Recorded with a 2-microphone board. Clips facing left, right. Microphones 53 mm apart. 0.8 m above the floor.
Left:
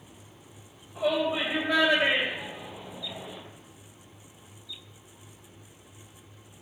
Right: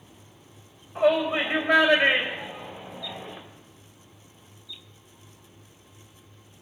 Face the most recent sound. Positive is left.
turn(degrees=-40)  # may be behind; listen again after turning